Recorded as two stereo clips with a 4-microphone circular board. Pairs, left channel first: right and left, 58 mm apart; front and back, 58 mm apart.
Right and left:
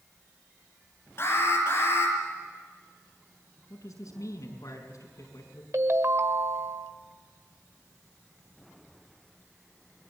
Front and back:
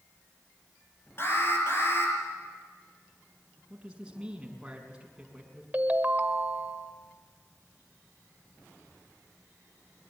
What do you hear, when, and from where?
1.2 s an alarm: 45° right, 6.5 m
3.7 s a man speaking: 105° right, 5.5 m
5.7 s a ringtone: 120° left, 1.3 m